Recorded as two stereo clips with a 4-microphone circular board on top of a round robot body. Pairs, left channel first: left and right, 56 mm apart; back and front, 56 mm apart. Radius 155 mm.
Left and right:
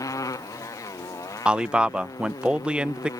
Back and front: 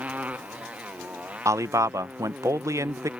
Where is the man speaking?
15° right.